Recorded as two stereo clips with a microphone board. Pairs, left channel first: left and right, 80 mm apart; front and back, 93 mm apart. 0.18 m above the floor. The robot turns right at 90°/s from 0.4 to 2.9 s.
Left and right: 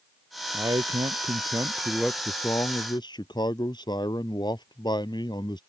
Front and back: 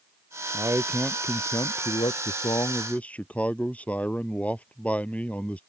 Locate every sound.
0.5 s a man speaking: 135° right; by 5.6 s 75° left